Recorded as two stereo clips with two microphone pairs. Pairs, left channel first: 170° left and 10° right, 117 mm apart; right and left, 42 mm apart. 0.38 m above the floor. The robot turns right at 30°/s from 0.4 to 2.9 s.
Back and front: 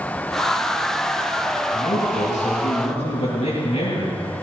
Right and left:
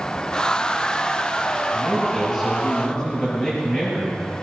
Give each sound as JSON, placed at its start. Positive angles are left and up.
{"t": 1.7, "sound": "a man speaking", "azimuth_deg": 165, "distance_m": 6.5}